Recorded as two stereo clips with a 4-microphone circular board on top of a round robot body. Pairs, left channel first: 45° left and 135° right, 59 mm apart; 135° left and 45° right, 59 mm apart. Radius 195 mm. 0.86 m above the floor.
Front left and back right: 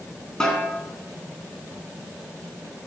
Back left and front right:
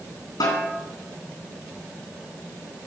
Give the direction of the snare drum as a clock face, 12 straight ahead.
8 o'clock.